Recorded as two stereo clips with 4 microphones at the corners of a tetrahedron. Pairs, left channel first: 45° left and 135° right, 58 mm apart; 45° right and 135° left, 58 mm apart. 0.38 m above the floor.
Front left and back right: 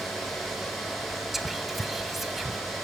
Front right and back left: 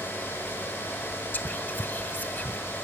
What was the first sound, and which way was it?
Whispering, 50° right.